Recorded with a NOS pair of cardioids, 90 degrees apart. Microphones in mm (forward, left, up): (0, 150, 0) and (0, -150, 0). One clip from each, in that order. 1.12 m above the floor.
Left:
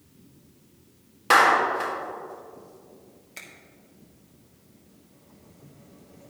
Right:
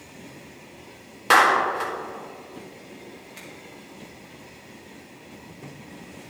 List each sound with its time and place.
1.3 s a clap: 15° right, 1.9 m
3.4 s a finger snap: 35° left, 2.5 m